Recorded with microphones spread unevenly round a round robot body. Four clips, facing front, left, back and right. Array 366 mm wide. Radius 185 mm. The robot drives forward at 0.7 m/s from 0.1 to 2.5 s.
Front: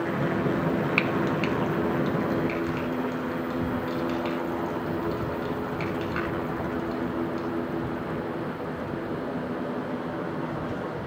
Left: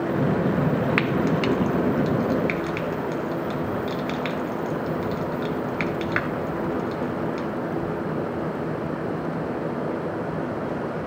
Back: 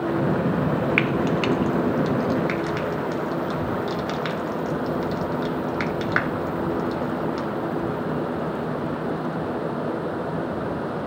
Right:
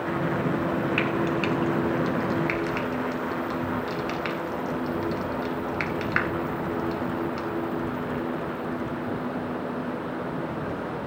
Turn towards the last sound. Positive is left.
turn(degrees=170)